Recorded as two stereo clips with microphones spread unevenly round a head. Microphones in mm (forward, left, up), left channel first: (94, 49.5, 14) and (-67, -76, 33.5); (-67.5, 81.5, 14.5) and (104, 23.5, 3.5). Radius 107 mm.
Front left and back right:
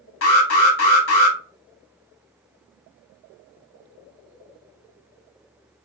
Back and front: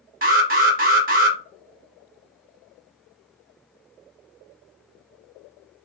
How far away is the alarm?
About 1.1 m.